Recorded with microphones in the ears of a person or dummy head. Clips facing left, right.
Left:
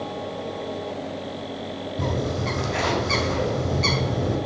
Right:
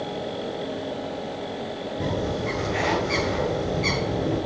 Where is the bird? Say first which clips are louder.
Even; 75° left (ahead or behind), 4.5 m.